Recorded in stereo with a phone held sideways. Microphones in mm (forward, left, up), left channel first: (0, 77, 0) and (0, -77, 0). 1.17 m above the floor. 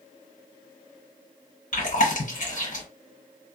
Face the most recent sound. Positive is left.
turn(degrees=55)  # may be behind; listen again after turning